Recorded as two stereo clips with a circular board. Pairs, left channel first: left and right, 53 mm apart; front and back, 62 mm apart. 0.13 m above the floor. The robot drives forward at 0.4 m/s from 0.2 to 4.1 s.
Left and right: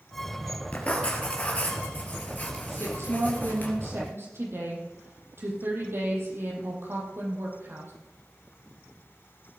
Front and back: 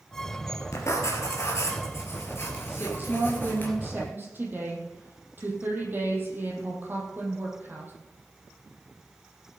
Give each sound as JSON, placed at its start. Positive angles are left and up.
{"t": 0.7, "sound": "writing", "azimuth_deg": 25, "distance_m": 3.0}
{"t": 2.7, "sound": "a woman speaking", "azimuth_deg": -120, "distance_m": 4.0}